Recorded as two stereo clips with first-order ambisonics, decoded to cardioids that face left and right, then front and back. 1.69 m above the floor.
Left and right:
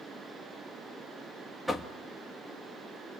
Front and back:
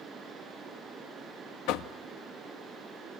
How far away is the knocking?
About 1.7 m.